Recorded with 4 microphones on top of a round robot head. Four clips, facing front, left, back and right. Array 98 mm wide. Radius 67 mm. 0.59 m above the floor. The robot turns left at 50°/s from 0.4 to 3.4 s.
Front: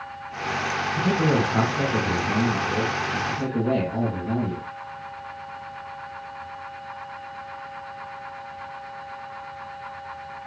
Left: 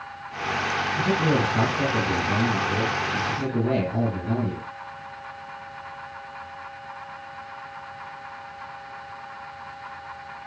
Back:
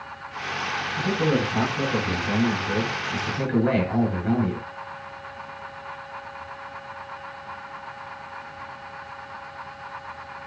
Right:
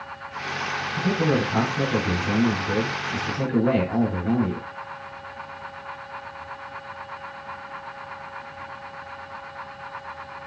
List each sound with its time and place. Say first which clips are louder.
1.0 s a man speaking: right 1 dB, front 1 dB; 30° right, 9 m; by 4.7 s 150° right, 9 m